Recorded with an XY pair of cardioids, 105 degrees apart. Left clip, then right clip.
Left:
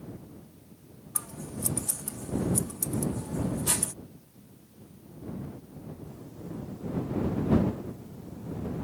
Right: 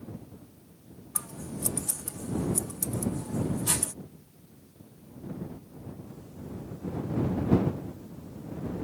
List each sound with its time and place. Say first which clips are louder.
1.1 s scissors: even; 5° right